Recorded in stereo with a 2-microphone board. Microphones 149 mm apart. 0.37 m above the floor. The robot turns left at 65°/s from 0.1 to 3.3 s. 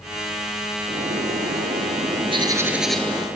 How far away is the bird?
About 0.9 m.